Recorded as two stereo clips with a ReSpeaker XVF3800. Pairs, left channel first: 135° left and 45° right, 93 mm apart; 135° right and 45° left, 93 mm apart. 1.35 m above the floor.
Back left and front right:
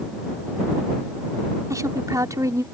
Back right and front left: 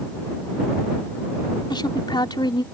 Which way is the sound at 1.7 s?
100° right.